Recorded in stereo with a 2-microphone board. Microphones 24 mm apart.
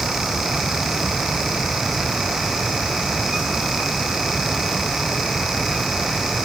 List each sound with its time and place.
Only background noise.